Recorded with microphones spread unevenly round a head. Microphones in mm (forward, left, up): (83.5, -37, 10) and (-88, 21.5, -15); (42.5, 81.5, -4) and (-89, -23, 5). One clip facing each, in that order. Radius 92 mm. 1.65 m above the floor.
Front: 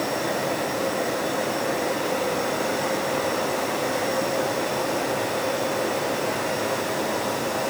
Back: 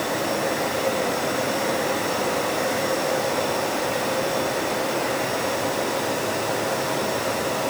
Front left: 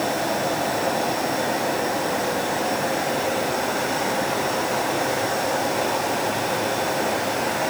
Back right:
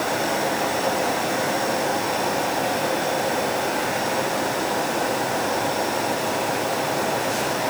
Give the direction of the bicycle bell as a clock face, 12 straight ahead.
I don't hear a bicycle bell.